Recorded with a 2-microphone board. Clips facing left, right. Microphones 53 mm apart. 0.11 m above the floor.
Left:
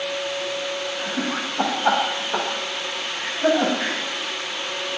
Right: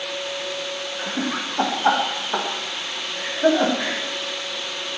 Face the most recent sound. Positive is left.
turn(degrees=-35)  # may be behind; listen again after turning